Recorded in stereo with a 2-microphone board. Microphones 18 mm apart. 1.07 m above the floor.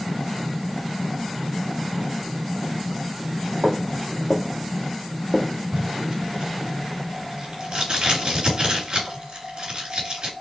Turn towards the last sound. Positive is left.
turn(degrees=-50)  # may be behind; listen again after turning